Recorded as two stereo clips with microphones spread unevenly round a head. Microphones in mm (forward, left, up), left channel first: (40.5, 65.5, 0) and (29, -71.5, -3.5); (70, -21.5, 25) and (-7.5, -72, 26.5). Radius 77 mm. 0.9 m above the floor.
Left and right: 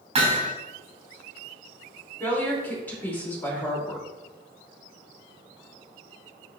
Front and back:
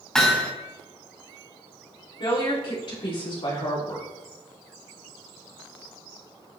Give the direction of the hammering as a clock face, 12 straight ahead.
2 o'clock.